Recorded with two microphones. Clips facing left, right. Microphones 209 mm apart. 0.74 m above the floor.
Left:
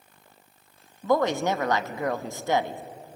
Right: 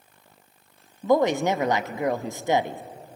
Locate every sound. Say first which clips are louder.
1.0 s a woman speaking: right 3 dB; 15° right (ahead or behind), 0.7 m